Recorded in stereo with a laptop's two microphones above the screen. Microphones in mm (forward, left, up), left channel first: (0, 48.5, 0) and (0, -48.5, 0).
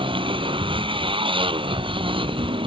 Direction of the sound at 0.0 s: 60° right (ahead or behind).